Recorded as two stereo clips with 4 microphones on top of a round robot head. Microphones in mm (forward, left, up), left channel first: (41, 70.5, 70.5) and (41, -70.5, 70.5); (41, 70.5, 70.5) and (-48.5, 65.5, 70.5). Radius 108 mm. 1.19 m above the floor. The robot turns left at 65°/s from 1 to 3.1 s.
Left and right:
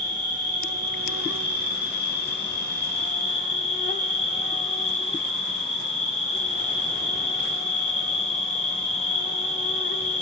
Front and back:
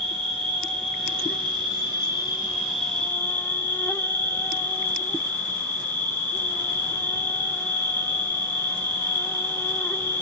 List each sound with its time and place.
0.0 s an insect: 150° right, 1.7 m; by 10.2 s 70° left, 1.7 m